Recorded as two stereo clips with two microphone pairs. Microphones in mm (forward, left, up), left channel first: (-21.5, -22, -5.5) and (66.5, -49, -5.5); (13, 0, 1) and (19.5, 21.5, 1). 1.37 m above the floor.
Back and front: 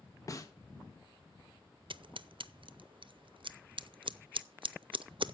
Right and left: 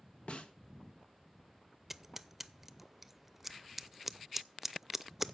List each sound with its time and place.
0.3 s a snare drum: 140° right, 1.3 m
1.9 s scissors: 10° right, 0.5 m